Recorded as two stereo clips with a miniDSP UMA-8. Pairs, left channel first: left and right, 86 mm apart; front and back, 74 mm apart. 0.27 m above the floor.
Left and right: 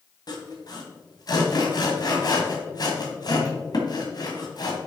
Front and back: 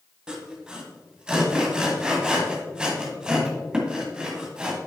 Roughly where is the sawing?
Left.